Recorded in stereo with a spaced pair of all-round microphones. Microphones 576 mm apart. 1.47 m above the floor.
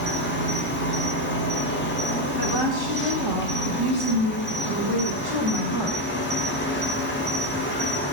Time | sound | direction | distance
0.0 | an insect | 20° left (ahead or behind) | 1.1 m
2.4 | a woman speaking | 40° right (ahead or behind) | 1.9 m